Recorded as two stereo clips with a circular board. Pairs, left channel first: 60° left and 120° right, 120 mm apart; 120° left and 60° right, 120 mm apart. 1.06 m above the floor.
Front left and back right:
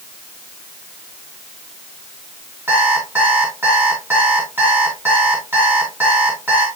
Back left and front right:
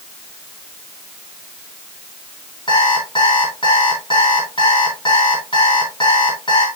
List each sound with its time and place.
2.7 s an alarm clock: 170° left, 4 m